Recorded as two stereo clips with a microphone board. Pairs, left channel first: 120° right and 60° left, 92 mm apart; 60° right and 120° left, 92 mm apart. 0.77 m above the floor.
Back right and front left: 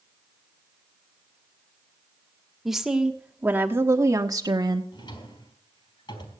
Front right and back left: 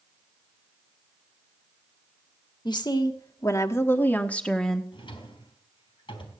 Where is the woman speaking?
25° right, 1.5 m; by 4.8 s 25° left, 1.3 m.